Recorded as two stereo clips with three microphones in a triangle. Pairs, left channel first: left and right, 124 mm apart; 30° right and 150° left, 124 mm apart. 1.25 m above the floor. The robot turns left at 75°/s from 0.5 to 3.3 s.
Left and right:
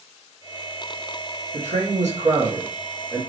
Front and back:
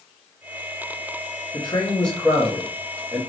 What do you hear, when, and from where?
1.5 s a man speaking: 75° right, 1.9 m; by 3.2 s 160° left, 1.9 m